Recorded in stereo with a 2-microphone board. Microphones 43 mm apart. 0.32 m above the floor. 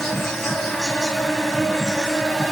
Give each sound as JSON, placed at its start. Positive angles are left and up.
{"t": 0.0, "sound": "an insect", "side_deg": 10, "distance_m": 1.2}